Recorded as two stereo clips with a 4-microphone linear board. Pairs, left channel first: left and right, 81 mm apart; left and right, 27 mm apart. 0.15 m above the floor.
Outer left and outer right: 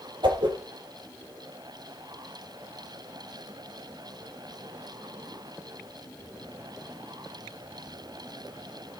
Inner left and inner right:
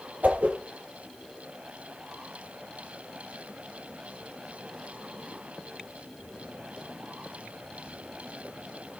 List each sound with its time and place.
0.2 s a whoosh: 70° right (ahead or behind), 4.5 m